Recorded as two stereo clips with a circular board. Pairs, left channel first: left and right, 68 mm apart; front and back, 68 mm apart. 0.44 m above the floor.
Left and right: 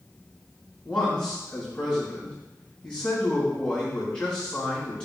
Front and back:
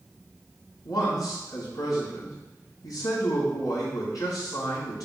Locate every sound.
0.8 s a man speaking: 15° left, 3.5 m